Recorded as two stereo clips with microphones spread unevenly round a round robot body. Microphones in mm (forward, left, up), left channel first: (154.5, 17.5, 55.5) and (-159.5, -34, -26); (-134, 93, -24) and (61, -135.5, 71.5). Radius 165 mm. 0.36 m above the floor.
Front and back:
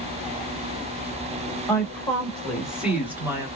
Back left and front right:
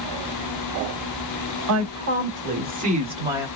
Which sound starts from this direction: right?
A woman speaking, at 1.7 s.